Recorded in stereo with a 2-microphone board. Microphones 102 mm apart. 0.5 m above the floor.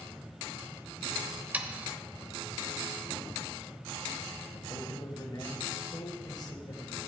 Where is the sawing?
15° right (ahead or behind), 0.6 m.